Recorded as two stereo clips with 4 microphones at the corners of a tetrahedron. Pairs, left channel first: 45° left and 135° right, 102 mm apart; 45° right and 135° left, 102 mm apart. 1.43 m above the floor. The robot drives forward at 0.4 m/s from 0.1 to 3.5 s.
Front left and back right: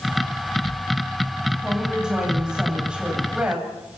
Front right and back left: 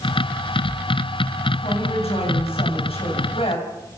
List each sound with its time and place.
1.6 s a woman speaking: 50° right, 8.5 m; by 3.7 s 55° right, 8 m